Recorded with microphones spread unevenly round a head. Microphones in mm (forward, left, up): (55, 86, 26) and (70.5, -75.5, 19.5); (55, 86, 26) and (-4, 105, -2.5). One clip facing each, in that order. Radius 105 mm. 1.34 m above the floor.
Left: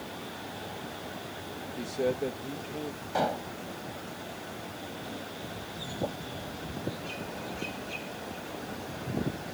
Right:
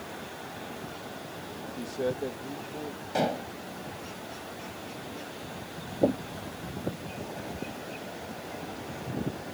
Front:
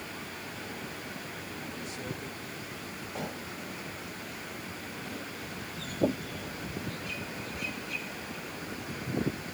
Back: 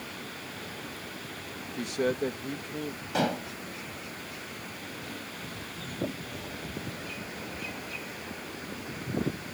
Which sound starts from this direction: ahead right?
Knocking, at 6.0 s.